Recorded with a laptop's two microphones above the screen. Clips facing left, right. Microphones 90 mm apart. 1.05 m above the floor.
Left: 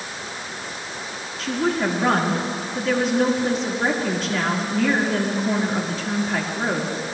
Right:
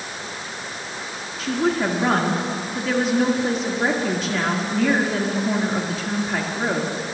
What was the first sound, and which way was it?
A woman speaking, centre (ahead or behind).